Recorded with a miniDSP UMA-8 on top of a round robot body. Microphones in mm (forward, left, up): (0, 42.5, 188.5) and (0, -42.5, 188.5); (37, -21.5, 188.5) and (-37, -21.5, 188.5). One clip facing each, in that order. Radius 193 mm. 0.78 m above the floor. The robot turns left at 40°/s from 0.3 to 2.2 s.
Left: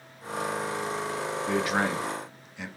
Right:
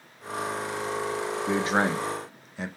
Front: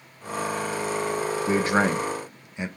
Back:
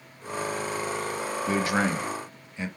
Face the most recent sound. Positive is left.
turn(degrees=-65)